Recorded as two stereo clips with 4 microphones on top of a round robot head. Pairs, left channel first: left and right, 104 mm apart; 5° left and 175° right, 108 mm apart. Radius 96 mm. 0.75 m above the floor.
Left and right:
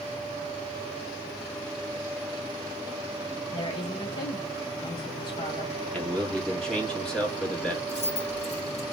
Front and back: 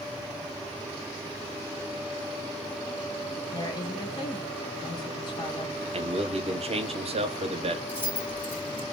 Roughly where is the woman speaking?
Ahead left.